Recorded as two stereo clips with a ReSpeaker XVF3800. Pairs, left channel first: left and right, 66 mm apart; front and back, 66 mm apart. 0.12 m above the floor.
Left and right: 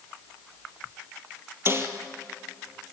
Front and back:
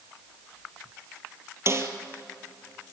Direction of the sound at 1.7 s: 135° right.